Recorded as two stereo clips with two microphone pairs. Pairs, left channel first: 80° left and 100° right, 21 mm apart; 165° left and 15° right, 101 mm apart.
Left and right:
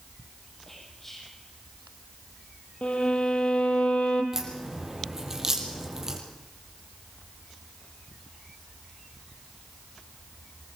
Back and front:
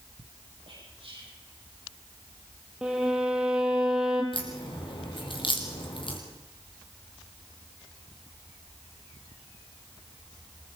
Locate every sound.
0.7 s whispering: 5° left, 7.5 m
2.8 s a violin: 65° left, 3 m
4.3 s a crack: 165° right, 3.5 m